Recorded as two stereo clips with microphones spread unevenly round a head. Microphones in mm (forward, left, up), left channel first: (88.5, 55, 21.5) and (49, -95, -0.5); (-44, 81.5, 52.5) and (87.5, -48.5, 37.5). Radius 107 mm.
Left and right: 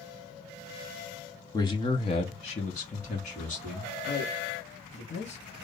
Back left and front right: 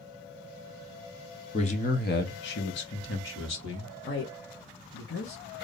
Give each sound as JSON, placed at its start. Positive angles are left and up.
{"t": 1.5, "sound": "a man speaking", "azimuth_deg": 110, "distance_m": 0.6}
{"t": 4.0, "sound": "a man speaking", "azimuth_deg": 115, "distance_m": 0.9}